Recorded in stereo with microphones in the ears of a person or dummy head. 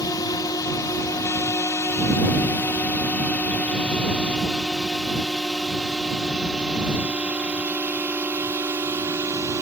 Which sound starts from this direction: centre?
A drone, at 0.0 s.